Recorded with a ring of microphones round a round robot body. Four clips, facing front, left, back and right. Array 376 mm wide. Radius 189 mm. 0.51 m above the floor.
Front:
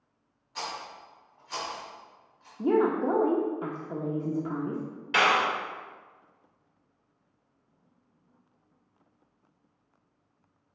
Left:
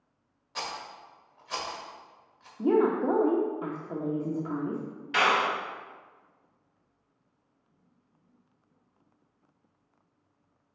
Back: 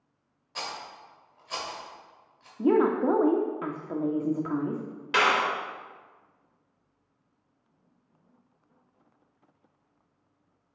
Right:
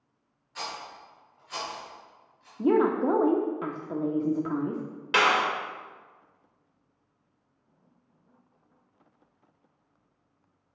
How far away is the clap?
About 2 m.